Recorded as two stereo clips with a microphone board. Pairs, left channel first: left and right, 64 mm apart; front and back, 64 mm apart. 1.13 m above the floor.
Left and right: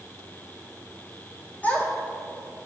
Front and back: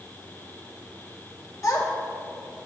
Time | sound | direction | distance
1.6 | a child speaking | 30° left | 0.8 m